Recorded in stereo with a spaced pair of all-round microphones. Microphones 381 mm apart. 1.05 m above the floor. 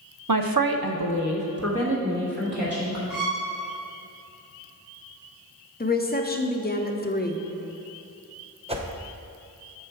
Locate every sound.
0.3 s a woman speaking: 60° right (ahead or behind), 0.7 m; by 3.0 s 25° right (ahead or behind), 2.5 m
3.1 s a violin: 65° right (ahead or behind), 2.5 m
5.8 s a woman speaking: 25° left (ahead or behind), 0.6 m
8.7 s a whoosh: 15° right (ahead or behind), 0.6 m